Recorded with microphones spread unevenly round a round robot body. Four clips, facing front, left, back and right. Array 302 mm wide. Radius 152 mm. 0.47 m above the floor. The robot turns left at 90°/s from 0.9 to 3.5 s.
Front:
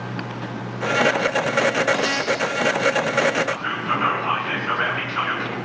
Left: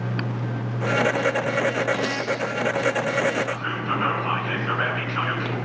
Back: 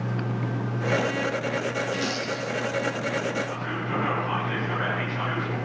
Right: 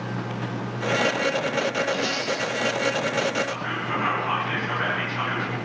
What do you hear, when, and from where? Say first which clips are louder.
1.9 s crumpling: left 1 dB, front 6 dB; straight behind, 8 m; by 2.4 s 135° left, 8 m
3.5 s whispering: left 2 dB, front 6 dB; 25° left, 5 m; by 5.5 s 20° left, 5 m